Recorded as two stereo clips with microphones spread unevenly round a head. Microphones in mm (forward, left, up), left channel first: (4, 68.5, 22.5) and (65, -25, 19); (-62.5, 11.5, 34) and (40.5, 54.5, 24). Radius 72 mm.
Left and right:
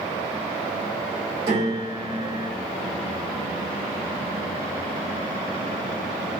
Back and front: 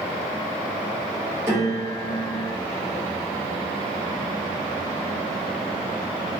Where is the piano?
45° right, 1.1 m.